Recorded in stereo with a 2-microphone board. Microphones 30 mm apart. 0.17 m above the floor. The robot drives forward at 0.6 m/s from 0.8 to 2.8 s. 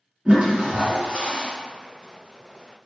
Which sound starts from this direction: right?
A toilet flushing, at 0.2 s.